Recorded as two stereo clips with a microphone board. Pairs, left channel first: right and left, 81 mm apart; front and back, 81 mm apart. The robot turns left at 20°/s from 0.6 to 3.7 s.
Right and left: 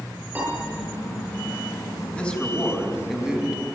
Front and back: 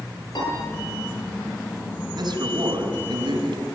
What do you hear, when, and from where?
0.3 s a piano: 25° left, 9.5 m
2.1 s a man speaking: 160° right, 4.5 m; by 3.6 s 170° left, 4.5 m